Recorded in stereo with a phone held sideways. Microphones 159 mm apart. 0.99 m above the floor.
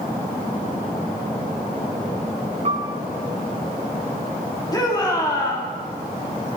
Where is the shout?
25° left (ahead or behind), 2.5 m.